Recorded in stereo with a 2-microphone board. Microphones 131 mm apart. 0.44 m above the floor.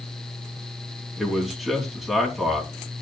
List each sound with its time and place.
1.2 s a man speaking: centre (ahead or behind), 3 m